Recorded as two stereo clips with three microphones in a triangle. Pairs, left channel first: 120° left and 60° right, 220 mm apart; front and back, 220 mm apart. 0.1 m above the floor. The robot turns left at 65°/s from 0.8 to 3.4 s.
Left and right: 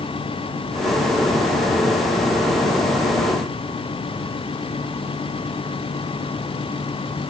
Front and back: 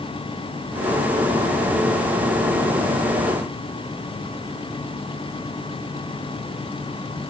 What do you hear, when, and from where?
Only background noise.